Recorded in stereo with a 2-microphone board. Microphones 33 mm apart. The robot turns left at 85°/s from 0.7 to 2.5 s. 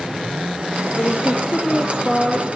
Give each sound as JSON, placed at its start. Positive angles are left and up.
{"t": 1.0, "sound": "a woman speaking", "azimuth_deg": 105, "distance_m": 3.0}